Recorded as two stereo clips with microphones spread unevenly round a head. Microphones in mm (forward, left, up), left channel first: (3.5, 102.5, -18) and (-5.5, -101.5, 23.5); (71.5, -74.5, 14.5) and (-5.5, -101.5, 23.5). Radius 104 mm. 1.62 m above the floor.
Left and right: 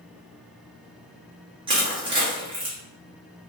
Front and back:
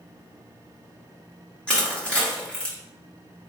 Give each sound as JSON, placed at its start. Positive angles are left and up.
{"t": 1.7, "sound": "crushing", "azimuth_deg": -55, "distance_m": 1.0}